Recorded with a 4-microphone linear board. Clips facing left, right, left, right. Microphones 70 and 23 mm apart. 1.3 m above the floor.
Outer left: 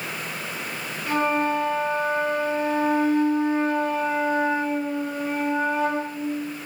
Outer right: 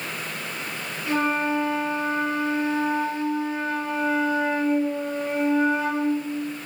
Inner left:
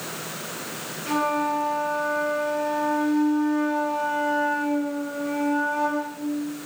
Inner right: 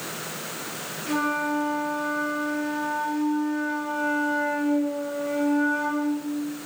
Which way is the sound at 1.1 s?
45° left (ahead or behind).